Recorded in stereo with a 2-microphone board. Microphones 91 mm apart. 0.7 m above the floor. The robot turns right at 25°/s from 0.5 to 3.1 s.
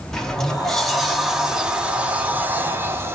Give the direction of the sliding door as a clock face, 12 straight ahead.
6 o'clock.